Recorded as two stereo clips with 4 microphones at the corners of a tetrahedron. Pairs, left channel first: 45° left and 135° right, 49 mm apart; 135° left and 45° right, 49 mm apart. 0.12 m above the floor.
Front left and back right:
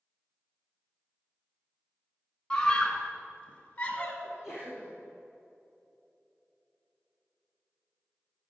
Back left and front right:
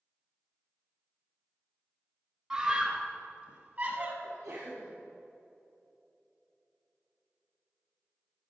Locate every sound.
2.5 s a scream: 10° right, 1.3 m
4.2 s a sneeze: 60° right, 3.5 m